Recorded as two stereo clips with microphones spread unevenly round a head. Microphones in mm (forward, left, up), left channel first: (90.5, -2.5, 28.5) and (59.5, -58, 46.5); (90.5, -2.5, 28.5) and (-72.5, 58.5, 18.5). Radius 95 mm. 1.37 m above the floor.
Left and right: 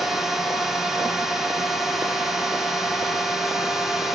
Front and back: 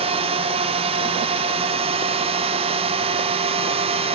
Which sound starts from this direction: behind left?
A drone, at 0.0 s.